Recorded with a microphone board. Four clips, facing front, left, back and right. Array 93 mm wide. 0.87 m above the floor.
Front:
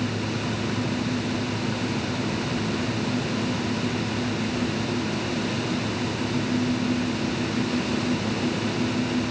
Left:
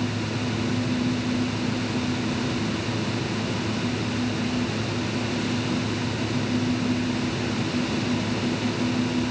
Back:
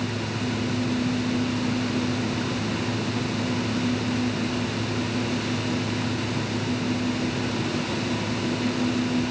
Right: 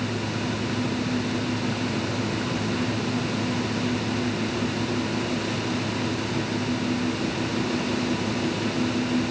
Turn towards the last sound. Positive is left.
No sound to turn to.